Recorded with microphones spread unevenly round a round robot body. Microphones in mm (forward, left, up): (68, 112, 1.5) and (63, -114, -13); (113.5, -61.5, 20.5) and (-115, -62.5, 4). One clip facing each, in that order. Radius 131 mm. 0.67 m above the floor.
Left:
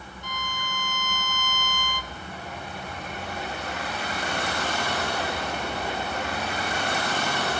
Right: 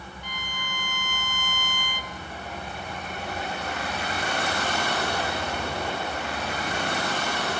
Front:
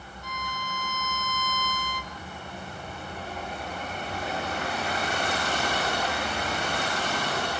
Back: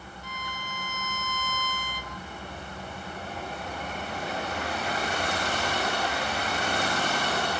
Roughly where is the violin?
Ahead left.